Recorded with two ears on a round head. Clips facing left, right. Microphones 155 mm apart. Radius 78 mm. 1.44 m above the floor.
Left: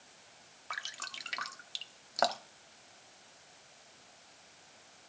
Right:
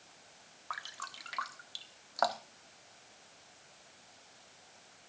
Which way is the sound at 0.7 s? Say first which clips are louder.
Right 1 dB; 25° left (ahead or behind).